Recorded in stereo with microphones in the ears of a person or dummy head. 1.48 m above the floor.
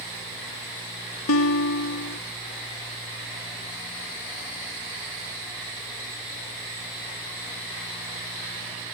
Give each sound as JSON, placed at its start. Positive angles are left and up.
{"t": 1.3, "sound": "a guitar", "side_deg": 85}